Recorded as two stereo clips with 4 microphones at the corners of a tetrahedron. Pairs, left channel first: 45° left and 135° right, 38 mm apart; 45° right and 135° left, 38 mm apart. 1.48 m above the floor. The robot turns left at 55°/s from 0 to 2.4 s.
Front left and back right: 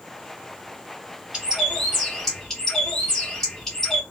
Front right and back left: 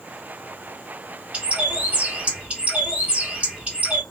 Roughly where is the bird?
Behind.